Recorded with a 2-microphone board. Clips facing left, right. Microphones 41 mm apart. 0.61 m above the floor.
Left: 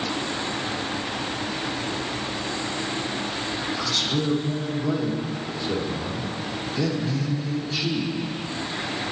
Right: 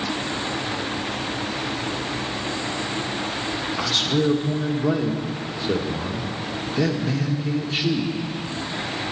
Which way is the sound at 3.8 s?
40° right (ahead or behind).